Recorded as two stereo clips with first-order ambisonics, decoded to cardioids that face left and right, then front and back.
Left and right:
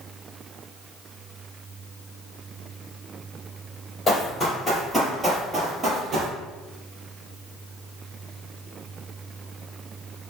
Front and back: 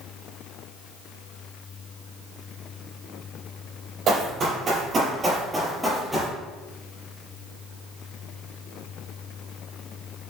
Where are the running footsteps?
155° left, 1.4 m; by 6.3 s 80° right, 1.2 m.